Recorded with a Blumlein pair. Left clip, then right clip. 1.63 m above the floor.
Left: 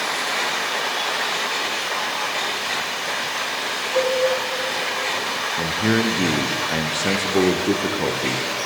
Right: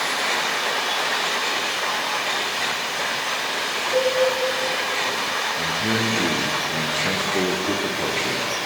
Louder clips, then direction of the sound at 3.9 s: Left 1 dB; 60° right.